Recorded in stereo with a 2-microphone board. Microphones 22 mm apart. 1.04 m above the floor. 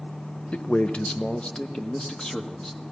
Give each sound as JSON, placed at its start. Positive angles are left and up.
{"t": 0.5, "sound": "a man speaking", "side_deg": 65, "distance_m": 0.6}